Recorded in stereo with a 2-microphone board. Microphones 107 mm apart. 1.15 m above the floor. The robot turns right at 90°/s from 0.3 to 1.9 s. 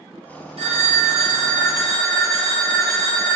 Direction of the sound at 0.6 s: 115° right.